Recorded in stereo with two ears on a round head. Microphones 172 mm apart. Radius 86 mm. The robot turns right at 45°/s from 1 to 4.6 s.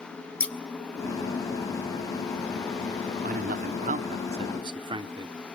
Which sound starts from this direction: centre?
Scissors, at 0.4 s.